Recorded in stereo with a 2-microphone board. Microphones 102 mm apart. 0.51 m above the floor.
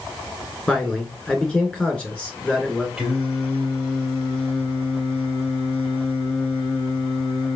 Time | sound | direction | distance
0.7 | a man speaking | centre (ahead or behind) | 1.4 m
3.0 | singing | 5° right (ahead or behind) | 2.5 m